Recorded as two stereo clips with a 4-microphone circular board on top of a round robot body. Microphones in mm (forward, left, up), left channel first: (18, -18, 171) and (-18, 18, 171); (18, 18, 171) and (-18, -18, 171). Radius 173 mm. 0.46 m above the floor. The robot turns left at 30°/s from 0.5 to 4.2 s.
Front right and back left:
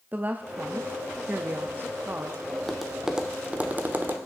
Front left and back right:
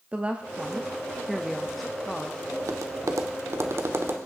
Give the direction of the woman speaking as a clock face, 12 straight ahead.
6 o'clock.